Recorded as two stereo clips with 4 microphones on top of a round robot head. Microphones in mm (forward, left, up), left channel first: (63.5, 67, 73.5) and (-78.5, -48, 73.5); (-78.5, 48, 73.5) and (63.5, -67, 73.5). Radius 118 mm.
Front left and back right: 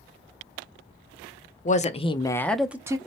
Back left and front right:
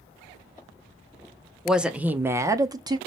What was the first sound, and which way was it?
A woman speaking, 50° left.